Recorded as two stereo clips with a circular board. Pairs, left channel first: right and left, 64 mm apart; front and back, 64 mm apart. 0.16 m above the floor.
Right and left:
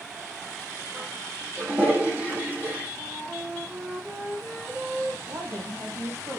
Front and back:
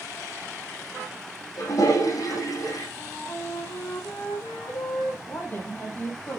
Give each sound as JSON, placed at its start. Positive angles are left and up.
{"t": 1.6, "sound": "a toilet flushing", "azimuth_deg": 30, "distance_m": 8.0}
{"t": 3.0, "sound": "a flute", "azimuth_deg": 30, "distance_m": 5.5}
{"t": 5.3, "sound": "a woman speaking", "azimuth_deg": 60, "distance_m": 7.0}